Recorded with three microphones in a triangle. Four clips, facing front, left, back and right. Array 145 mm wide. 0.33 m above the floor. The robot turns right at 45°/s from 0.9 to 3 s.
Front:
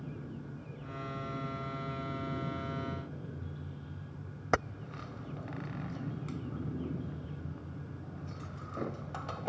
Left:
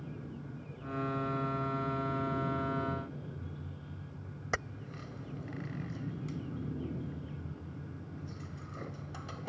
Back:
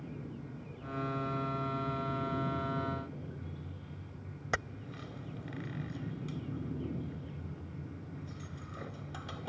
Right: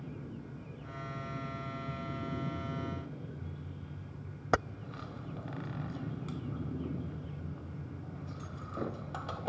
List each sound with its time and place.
4.5 s keys jangling: 55° right